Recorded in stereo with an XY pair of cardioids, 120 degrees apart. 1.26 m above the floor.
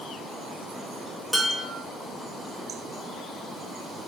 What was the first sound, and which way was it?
Dishes clattering, straight ahead.